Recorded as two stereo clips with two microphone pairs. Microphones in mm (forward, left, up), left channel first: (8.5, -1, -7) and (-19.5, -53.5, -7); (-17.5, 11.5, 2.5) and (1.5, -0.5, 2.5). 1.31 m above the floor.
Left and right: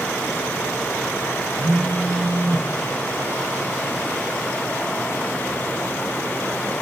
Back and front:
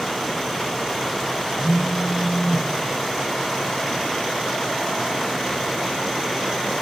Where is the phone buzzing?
135° right, 1.6 m.